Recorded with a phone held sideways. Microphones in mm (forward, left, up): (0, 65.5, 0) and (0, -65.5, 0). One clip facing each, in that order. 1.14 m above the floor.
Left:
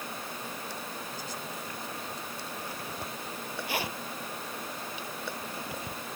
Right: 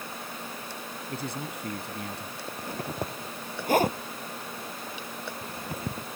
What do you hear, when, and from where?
1.1 s a man speaking: 90° right
2.5 s a zipper: 50° right (ahead or behind)